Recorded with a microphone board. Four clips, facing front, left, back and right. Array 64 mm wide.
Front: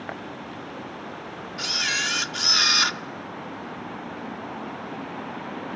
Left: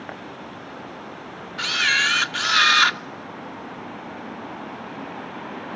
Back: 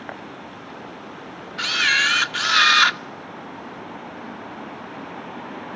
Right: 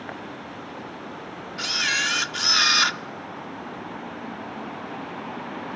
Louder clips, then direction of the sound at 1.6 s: Left 5 dB, back 8 dB; 150° left.